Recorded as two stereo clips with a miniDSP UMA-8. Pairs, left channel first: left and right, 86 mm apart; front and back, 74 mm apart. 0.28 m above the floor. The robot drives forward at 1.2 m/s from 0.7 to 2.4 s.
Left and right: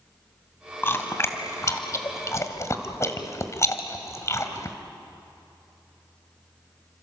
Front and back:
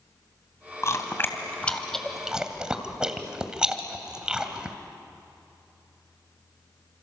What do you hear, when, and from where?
0.8 s chewing: 35° left, 2.5 m; by 4.8 s 110° left, 1.8 m